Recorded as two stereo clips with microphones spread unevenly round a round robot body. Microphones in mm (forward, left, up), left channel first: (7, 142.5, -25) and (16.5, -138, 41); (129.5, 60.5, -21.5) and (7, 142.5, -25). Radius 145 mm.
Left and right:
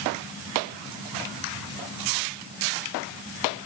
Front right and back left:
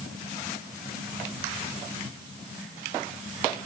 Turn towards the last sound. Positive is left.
No sound to turn to.